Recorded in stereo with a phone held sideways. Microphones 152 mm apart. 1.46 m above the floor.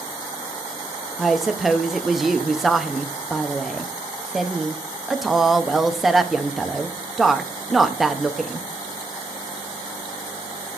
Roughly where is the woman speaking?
Centre.